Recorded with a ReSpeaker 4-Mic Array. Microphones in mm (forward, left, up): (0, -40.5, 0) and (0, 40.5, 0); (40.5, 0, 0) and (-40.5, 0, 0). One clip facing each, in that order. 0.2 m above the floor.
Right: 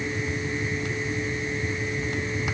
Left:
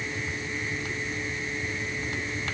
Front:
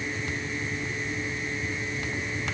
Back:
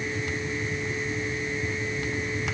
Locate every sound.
Only background noise.